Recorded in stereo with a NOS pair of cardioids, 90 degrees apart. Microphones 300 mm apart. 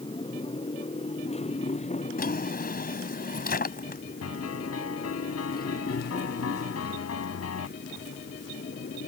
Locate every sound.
0.0 s a motorcycle: 15° left; by 9.1 s 35° left
2.2 s a drawer: 30° left
4.2 s a piano: 55° left